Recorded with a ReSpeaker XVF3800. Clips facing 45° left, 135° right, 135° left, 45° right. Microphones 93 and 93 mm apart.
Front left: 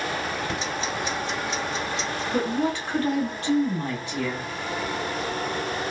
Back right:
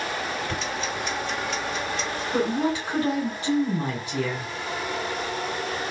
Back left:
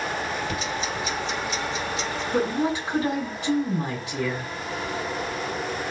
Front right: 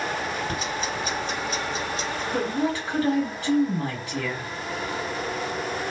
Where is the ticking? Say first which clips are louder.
Front left 1 dB, even; 20° right, 2.5 m.